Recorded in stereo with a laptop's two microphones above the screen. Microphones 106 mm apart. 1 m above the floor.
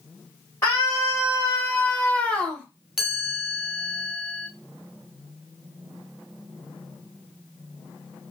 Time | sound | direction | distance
0.6 | a scream | 25° left (ahead or behind) | 1.0 m
3.0 | a chime | 5° right (ahead or behind) | 1.0 m